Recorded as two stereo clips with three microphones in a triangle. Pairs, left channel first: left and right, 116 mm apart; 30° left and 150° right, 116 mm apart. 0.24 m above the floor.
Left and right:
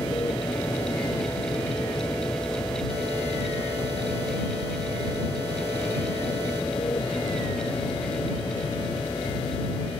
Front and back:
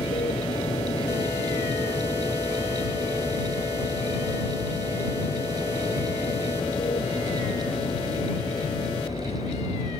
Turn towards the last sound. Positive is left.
turn(degrees=45)